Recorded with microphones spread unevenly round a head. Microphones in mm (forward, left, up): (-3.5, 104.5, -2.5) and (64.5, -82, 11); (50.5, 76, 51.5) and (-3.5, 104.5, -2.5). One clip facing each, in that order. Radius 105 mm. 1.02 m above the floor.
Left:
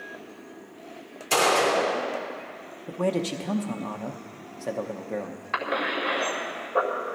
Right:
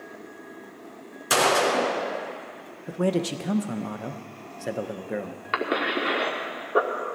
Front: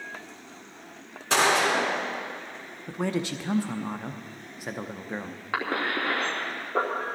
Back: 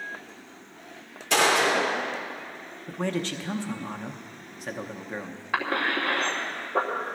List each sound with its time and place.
1.3 s a gunshot: 70° right, 4 m
2.9 s a man speaking: 150° right, 0.7 m
5.5 s a cough: 110° right, 2.5 m